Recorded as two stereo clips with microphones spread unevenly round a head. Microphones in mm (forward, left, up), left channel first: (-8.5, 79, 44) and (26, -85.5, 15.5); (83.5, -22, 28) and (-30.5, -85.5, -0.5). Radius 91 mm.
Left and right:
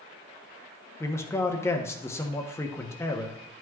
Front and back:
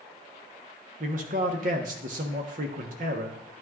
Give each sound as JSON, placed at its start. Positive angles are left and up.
{"t": 1.0, "sound": "a man speaking", "azimuth_deg": 180, "distance_m": 1.0}